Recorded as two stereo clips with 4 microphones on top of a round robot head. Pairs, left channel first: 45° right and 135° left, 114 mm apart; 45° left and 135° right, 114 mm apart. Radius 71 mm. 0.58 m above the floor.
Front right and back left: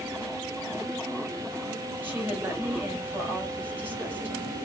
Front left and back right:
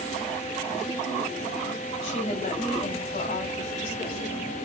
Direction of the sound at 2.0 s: 60° left.